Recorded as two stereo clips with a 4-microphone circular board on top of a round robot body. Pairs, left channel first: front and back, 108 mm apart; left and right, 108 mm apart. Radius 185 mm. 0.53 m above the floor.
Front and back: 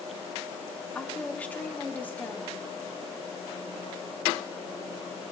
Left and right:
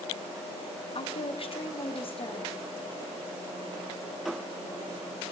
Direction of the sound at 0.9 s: 75° left.